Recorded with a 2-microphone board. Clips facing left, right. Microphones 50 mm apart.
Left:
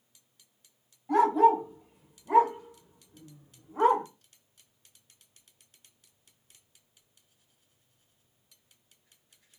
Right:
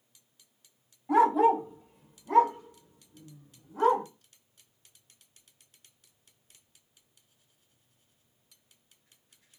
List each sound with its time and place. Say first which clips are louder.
1.1 s a dog barking: even; 10° right (ahead or behind), 1.2 m; by 4.0 s 35° left (ahead or behind), 1.2 m